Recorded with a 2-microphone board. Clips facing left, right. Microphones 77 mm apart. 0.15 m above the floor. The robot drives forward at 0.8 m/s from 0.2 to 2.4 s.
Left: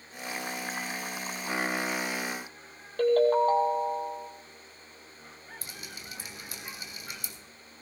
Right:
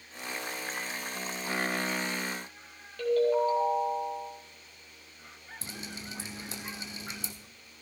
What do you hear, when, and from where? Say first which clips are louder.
3.0 s a ringtone: left 3 dB; 50° left (ahead or behind), 2 m
5.6 s dripping: right 6 dB; 25° right (ahead or behind), 1.5 m